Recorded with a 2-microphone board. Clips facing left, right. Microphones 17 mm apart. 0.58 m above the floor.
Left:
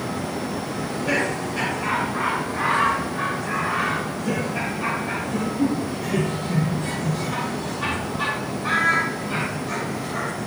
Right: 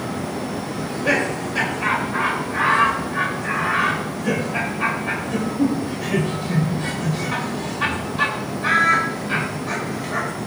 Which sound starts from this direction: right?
Laughter, at 0.8 s.